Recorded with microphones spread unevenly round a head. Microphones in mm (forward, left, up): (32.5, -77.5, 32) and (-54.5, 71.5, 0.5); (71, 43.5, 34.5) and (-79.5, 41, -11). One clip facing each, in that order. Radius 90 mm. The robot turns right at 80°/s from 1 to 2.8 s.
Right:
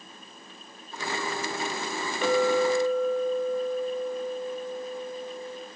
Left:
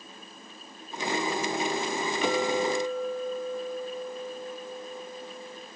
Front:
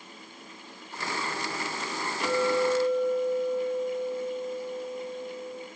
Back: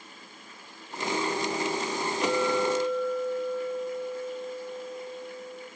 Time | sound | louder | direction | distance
2.2 | a clink | right 5 dB, front 1 dB | 110° right | 4 m